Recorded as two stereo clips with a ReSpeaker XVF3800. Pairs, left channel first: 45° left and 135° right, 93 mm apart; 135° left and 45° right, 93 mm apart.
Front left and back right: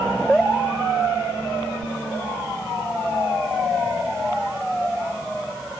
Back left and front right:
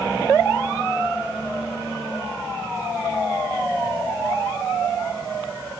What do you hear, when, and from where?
Only background noise.